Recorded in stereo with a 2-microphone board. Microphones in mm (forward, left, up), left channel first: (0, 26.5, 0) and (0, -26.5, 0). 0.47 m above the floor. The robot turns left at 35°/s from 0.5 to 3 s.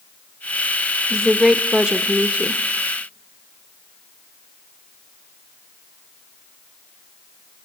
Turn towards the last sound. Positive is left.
turn(degrees=-65)